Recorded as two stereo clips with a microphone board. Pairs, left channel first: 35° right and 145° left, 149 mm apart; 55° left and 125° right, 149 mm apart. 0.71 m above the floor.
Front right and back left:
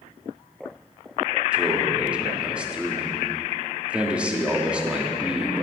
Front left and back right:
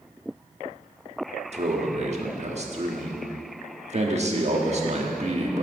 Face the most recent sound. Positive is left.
turn(degrees=-135)